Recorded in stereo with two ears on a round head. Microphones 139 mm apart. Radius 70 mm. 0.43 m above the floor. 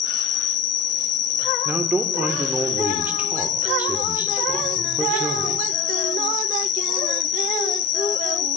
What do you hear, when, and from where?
0.0 s an insect: 45° left (ahead or behind), 1.2 m
1.6 s a man speaking: 10° right (ahead or behind), 1.2 m